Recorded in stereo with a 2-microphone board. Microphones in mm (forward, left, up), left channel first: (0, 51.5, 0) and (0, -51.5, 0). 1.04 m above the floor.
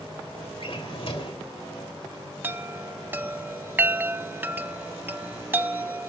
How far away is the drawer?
About 2.5 m.